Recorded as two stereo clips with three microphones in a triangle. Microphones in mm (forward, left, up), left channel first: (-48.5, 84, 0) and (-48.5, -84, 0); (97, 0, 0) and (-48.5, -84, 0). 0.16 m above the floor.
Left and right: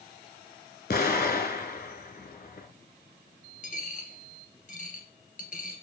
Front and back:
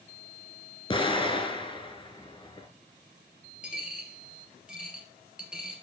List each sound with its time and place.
0.9 s an explosion: 85° left, 0.9 m
3.6 s a dropped coin: 125° left, 1.6 m